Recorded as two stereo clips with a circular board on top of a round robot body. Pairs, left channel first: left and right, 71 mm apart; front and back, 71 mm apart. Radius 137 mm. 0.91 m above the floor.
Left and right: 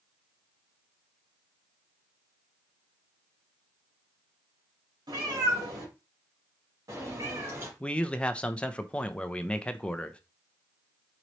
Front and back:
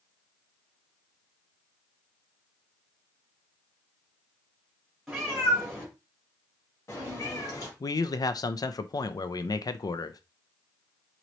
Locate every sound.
5.1 s a cat meowing: 90° right, 2.0 m; by 7.7 s 35° right, 2 m
7.8 s a man speaking: 15° left, 0.5 m